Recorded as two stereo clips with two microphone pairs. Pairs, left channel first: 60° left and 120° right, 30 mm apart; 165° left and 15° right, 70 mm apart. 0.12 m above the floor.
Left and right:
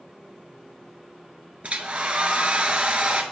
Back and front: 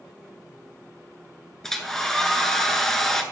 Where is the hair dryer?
115° right, 1.0 m.